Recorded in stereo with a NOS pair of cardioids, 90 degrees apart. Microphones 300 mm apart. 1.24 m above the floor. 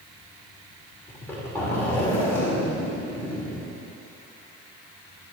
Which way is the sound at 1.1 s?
10° left.